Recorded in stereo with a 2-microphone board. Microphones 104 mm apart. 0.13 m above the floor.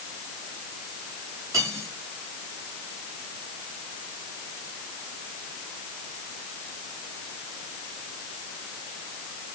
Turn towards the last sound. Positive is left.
turn(degrees=-30)  # may be behind; listen again after turning